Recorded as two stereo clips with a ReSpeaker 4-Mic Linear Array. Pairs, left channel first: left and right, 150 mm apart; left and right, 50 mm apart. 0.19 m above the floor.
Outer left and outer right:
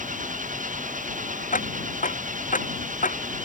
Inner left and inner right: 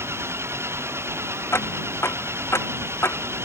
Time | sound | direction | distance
0.0 | an engine running | 60° right (ahead or behind) | ?
1.5 | ticking | 60° left (ahead or behind) | ?